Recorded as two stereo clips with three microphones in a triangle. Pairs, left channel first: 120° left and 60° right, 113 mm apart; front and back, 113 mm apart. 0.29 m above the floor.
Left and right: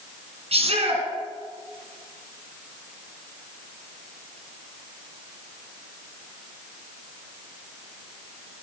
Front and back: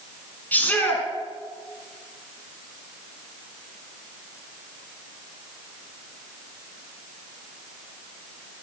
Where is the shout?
75° right, 3 m.